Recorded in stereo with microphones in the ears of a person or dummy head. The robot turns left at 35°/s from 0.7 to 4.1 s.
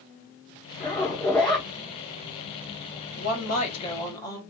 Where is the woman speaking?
55° left, 1.3 m; by 4.4 s 20° left, 1.3 m.